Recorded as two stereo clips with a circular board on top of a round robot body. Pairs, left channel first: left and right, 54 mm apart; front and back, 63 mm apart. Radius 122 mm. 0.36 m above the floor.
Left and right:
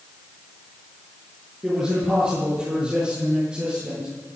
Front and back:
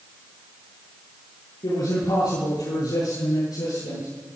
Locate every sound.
1.6 s a man speaking: 15° right, 9 m; by 4.1 s 20° right, 11.5 m